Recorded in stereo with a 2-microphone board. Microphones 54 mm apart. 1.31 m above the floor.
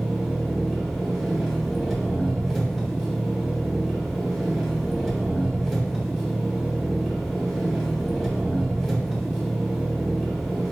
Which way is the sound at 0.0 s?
5° left (ahead or behind).